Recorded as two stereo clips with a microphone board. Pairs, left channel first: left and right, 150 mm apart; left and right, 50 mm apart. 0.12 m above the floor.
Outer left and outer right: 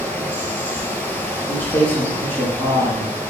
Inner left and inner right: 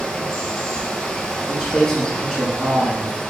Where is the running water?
10° left (ahead or behind), 0.7 m.